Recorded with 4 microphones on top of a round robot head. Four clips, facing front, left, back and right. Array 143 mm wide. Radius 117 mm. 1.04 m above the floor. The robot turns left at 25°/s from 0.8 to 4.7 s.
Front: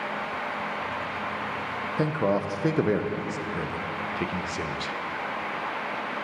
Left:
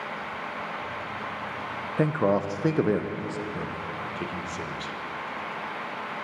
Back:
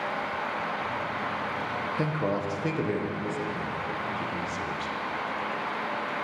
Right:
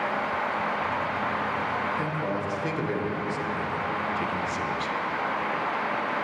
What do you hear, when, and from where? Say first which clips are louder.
2.0 s a man speaking: left 5 dB, front 5 dB; 70° left, 0.6 m; by 4.9 s 5° left, 0.6 m